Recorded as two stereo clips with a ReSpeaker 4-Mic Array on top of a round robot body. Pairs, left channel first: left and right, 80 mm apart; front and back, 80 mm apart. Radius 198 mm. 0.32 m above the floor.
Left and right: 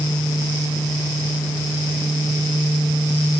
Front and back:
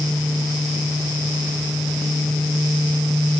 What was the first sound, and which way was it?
Only background noise.